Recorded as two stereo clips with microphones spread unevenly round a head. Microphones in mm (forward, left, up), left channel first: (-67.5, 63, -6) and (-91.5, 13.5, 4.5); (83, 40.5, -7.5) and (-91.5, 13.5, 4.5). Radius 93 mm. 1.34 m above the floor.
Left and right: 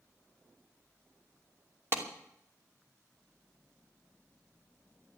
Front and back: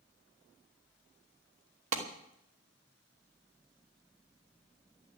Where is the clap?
155° right, 2.5 m.